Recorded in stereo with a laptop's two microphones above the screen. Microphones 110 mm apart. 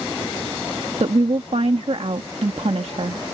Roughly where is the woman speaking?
Right.